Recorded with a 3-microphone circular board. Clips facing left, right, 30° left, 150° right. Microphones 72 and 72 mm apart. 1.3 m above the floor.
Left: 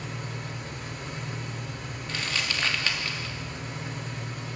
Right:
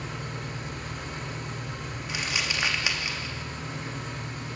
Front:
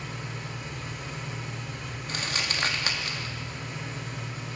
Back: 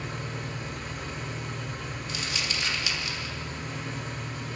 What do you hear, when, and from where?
0.0 s an engine running: 110° right, 9 m
2.1 s crumpling: 10° right, 3 m